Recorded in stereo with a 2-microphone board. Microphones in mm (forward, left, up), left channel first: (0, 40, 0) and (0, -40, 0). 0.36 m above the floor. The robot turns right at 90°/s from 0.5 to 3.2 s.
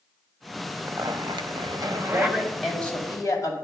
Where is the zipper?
155° right, 0.6 m; by 2.4 s 10° right, 0.6 m.